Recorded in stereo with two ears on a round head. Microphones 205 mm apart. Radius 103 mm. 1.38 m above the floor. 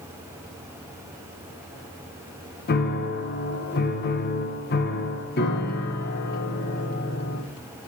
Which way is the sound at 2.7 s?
45° left (ahead or behind).